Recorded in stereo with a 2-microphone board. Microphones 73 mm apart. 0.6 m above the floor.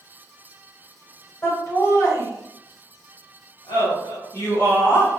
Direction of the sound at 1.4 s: 40° left (ahead or behind).